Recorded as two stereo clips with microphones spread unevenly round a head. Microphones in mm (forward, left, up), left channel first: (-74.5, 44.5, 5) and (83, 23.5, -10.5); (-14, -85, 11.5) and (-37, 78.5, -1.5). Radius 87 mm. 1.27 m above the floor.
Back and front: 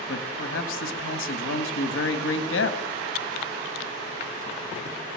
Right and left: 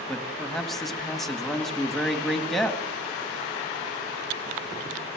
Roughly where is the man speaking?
Behind.